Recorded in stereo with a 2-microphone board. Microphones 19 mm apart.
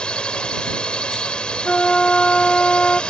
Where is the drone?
65° left (ahead or behind).